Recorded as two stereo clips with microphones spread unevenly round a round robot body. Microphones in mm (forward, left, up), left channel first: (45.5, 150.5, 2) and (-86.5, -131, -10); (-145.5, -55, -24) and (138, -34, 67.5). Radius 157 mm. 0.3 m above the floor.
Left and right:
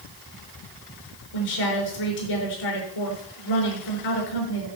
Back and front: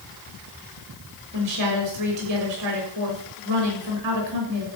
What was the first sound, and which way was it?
A woman speaking, 50° left.